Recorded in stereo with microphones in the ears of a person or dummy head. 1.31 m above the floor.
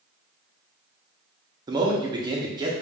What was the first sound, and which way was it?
A man speaking, 20° right (ahead or behind).